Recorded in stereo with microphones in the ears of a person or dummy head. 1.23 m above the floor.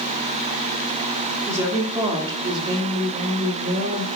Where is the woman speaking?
15° right (ahead or behind), 3 m; by 4.0 s 45° right (ahead or behind), 2.5 m.